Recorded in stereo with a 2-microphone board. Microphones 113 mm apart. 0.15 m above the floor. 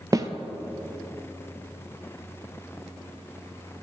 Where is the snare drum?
30° right (ahead or behind), 0.6 m.